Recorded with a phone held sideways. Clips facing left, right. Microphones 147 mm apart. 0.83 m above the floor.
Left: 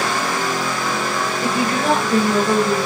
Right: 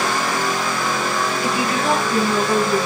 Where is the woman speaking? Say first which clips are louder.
Left 3 dB; 45° left (ahead or behind), 6.5 m.